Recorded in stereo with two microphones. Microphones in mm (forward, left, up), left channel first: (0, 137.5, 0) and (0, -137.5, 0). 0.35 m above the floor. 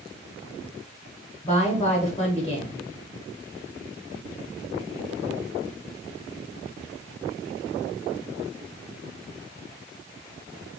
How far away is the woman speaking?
About 1.1 m.